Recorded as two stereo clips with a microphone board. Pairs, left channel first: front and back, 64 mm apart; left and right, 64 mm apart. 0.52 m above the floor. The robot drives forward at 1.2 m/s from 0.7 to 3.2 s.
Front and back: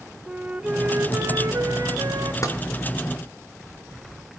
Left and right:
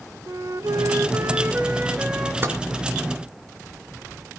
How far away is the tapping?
About 3 m.